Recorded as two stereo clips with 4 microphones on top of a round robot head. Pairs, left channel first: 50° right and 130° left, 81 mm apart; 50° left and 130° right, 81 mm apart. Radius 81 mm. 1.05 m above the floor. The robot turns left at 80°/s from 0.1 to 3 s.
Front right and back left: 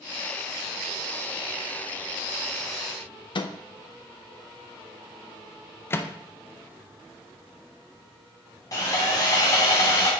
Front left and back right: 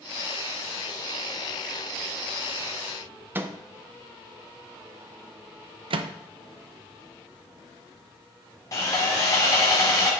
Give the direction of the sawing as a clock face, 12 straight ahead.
12 o'clock.